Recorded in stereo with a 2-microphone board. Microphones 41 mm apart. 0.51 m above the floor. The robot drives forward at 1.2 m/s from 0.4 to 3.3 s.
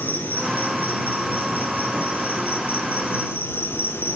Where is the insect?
45° left (ahead or behind), 9 m; by 4.2 s 65° left (ahead or behind), 7 m.